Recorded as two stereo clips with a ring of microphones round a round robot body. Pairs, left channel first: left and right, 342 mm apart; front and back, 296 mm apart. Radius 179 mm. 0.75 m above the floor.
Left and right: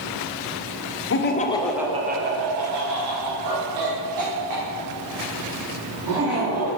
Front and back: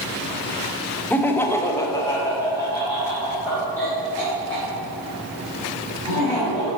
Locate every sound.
1.1 s laughter: 80° left, 1.0 m; by 6.7 s 85° right, 4 m